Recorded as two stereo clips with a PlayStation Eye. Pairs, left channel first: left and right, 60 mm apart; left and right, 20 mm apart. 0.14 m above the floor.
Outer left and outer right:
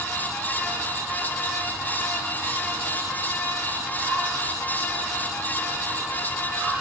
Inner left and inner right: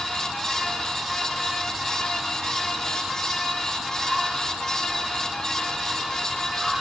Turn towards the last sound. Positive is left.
No sound to turn to.